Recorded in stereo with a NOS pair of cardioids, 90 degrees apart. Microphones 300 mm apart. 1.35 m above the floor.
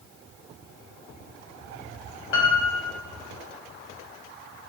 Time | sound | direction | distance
2.3 | a piano | 45° left | 1.1 m